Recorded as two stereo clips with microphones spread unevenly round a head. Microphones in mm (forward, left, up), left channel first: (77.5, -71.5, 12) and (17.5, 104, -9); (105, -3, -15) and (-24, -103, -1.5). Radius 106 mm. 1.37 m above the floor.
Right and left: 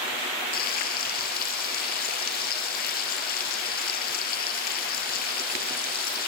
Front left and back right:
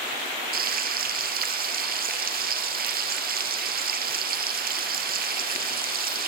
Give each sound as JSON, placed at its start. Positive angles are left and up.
{"t": 0.5, "sound": "frying", "azimuth_deg": -120, "distance_m": 5.5}